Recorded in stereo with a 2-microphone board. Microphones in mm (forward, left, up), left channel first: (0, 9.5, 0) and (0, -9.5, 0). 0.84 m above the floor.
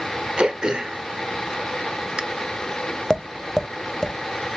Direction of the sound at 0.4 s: 45° right (ahead or behind).